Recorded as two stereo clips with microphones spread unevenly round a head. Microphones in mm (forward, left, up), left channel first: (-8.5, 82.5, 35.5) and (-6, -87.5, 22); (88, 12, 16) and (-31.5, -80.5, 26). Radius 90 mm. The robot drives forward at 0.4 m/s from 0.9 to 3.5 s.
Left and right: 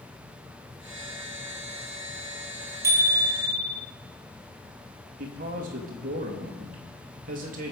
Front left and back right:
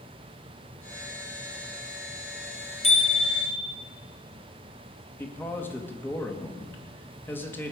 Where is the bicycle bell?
15° right, 4 m.